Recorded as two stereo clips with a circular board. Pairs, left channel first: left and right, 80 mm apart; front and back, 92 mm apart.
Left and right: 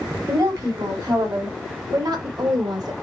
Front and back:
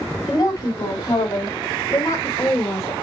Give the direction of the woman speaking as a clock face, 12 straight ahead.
2 o'clock.